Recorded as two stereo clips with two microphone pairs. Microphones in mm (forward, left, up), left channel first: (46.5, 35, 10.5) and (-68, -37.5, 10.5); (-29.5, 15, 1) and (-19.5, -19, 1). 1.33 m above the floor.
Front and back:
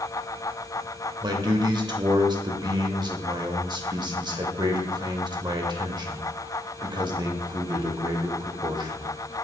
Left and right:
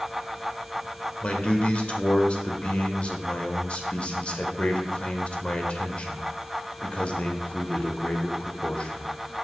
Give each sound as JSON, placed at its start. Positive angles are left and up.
{"t": 1.2, "sound": "a man speaking", "azimuth_deg": 160, "distance_m": 1.0}